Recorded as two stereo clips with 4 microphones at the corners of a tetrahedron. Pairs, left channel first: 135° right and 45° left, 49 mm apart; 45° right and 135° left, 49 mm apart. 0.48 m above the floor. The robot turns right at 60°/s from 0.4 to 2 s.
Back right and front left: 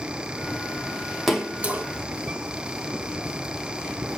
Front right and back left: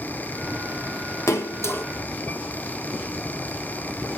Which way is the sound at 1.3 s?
40° right.